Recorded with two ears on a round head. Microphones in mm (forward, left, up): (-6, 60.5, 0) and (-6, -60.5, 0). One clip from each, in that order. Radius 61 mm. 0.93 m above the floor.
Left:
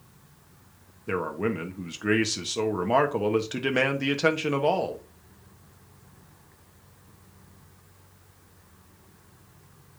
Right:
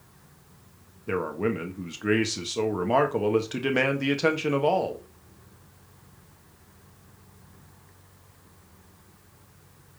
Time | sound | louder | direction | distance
1.1 | a man speaking | right 1 dB | 10° left (ahead or behind) | 1.2 m